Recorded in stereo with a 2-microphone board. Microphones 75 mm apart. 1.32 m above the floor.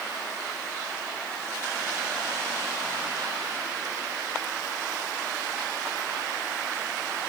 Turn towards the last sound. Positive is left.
No sound to turn to.